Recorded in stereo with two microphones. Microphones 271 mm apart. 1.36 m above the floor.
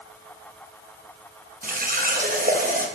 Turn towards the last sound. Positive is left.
turn(degrees=-30)  # may be behind; listen again after turning